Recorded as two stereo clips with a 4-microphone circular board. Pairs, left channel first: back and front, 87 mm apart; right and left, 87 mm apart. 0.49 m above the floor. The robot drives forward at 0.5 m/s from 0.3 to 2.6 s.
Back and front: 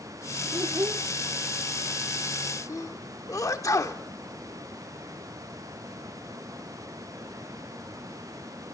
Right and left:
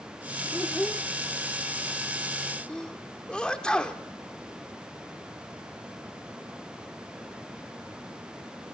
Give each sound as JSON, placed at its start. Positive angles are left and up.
{"t": 0.5, "sound": "a child speaking", "azimuth_deg": -15, "distance_m": 0.6}
{"t": 2.7, "sound": "a sneeze", "azimuth_deg": -165, "distance_m": 0.9}